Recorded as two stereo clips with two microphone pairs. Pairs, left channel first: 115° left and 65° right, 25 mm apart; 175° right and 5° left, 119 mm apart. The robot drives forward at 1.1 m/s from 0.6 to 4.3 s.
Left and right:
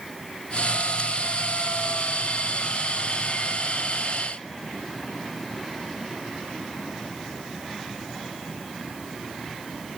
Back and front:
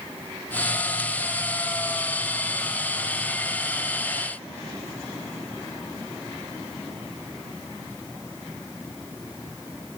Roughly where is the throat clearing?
No throat clearing in this recording.